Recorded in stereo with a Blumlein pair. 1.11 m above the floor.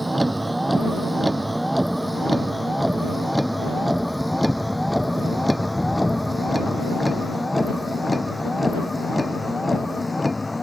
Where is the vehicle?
5° right; by 10.6 s 5° left.